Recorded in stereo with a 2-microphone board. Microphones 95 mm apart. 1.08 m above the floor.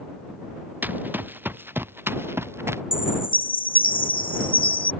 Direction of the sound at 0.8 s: 20° right (ahead or behind).